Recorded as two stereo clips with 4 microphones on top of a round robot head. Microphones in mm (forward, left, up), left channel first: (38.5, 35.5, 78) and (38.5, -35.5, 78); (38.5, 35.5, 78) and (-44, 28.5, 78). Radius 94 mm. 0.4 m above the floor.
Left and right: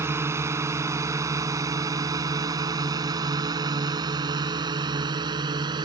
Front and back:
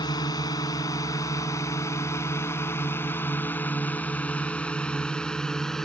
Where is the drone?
35° right; by 5.9 s 80° right.